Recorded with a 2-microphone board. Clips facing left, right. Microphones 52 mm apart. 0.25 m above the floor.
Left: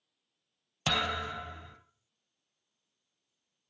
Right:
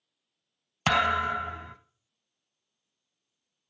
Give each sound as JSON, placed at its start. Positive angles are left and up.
{"t": 0.9, "sound": "a thud", "side_deg": -55, "distance_m": 0.5}